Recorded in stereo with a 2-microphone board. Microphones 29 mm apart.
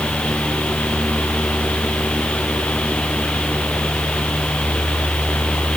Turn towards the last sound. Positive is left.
No sound to turn to.